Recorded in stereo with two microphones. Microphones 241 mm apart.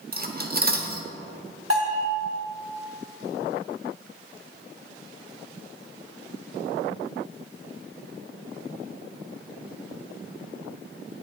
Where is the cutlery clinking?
40° right (ahead or behind), 0.9 m.